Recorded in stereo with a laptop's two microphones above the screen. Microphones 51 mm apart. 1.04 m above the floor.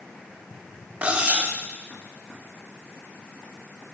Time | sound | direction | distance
1.0 | cutlery clinking | 25° right (ahead or behind) | 0.7 m